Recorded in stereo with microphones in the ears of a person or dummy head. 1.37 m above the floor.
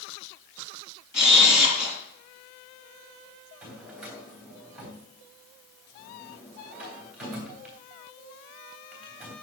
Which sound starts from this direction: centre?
A drawer, at 3.6 s.